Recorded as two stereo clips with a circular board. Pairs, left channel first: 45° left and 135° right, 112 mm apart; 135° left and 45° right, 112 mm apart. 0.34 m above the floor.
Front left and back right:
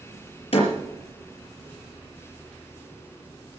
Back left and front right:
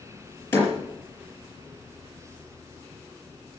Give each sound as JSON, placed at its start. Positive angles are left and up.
{"t": 0.5, "sound": "a door slam", "azimuth_deg": 65, "distance_m": 5.0}